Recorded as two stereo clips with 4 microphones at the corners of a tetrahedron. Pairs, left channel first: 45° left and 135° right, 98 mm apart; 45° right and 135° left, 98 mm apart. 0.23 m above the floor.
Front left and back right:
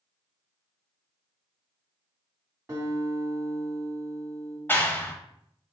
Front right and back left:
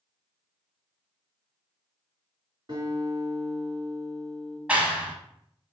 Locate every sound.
2.7 s a guitar: 165° left, 2 m
4.7 s a clap: 80° left, 0.8 m